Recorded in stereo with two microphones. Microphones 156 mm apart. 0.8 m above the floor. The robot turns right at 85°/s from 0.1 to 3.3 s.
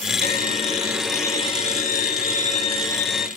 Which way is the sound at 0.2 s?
75° right.